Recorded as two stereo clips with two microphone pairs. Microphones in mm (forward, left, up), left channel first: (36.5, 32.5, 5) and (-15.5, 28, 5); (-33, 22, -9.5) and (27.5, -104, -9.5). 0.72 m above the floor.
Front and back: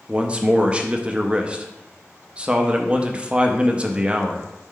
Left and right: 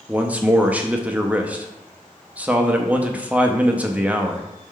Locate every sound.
0.1 s a man speaking: 125° right, 0.5 m